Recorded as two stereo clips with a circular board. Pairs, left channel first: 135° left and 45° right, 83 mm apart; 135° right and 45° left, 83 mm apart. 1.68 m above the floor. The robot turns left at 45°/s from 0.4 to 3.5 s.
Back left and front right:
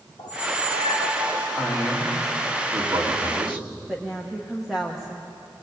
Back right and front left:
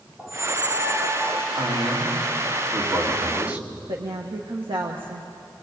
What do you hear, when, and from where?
0.2 s a squeak: 135° left, 3.5 m; by 1.5 s 85° left, 3.5 m
1.6 s a man speaking: 55° left, 3.5 m; by 3.7 s 30° right, 3.5 m
3.9 s a woman speaking: 40° left, 1.4 m